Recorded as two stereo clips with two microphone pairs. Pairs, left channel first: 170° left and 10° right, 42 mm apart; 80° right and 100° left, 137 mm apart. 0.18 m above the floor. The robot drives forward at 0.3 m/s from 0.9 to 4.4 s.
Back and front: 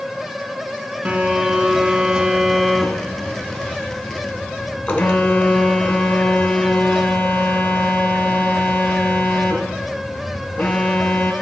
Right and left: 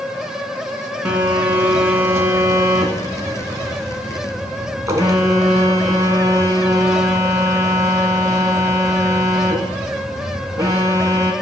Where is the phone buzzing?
25° left, 0.8 m; by 11.3 s 155° left, 0.7 m.